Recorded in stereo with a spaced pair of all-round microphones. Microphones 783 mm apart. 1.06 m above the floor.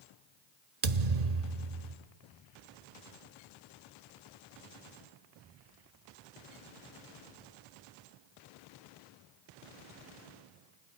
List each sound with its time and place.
0.8 s a thud: 55° right (ahead or behind), 1.1 m